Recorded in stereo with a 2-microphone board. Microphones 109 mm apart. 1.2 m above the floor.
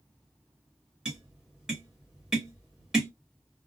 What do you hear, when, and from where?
1.1 s tapping: 5° right (ahead or behind), 1.2 m